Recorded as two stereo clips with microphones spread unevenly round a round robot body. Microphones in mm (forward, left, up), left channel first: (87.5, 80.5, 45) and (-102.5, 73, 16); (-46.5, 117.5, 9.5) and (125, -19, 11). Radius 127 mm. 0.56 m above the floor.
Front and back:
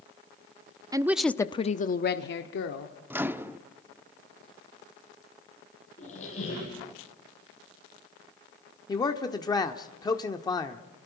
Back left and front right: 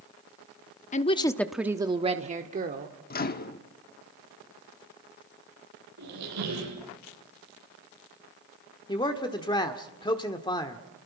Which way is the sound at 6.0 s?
65° right.